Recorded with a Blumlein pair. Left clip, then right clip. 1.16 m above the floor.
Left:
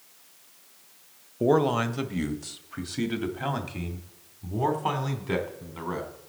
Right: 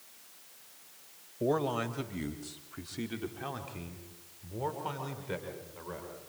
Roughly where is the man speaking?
Ahead left.